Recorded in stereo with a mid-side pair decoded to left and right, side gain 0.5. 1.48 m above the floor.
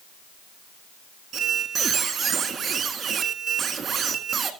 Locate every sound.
1.3 s a squeak: 45° right, 1.8 m